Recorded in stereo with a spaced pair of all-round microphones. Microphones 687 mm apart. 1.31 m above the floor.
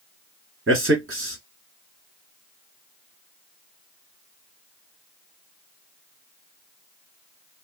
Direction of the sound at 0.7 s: 20° right (ahead or behind).